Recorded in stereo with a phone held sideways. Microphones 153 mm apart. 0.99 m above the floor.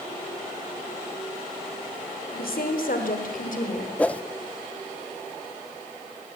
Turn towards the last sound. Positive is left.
turn(degrees=10)  # may be behind; listen again after turning